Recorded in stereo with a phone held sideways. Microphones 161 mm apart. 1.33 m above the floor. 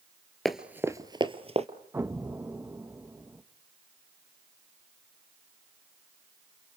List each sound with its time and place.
0.5 s running footsteps: centre (ahead or behind), 1.4 m; by 1.7 s 40° right (ahead or behind), 1.8 m
1.9 s an explosion: 15° right (ahead or behind), 1.1 m